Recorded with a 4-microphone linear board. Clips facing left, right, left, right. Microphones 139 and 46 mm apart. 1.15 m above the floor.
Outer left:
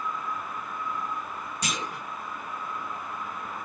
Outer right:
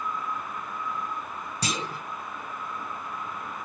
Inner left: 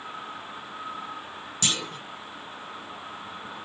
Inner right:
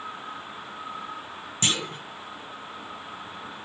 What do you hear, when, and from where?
1.6 s a clunk: 35° right (ahead or behind), 0.9 m